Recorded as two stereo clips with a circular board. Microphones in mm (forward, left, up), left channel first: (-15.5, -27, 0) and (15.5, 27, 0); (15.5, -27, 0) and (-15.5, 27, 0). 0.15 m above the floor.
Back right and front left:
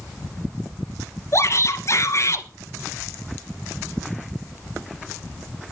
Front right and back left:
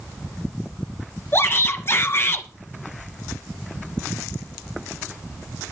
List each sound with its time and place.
1.3 s a shout: 95° right, 2.5 m